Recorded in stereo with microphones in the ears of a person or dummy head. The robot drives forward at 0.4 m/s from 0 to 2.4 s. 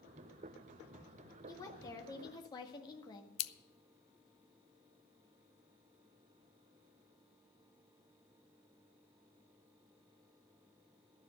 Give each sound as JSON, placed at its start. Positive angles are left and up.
{"t": 1.5, "sound": "a woman speaking", "side_deg": 15, "distance_m": 2.0}
{"t": 3.4, "sound": "scissors", "side_deg": 70, "distance_m": 0.7}